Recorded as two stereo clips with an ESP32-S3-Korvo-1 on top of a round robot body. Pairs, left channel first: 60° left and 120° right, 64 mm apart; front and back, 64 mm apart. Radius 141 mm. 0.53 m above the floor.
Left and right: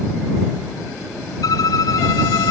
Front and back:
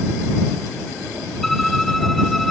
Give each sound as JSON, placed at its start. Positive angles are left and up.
{"t": 1.4, "sound": "a violin", "azimuth_deg": 90}